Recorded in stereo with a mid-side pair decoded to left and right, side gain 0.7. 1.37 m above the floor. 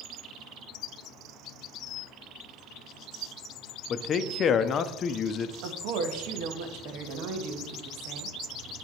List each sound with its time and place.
3.9 s a man speaking: 40° left, 0.6 m
5.6 s a woman speaking: 65° right, 1.4 m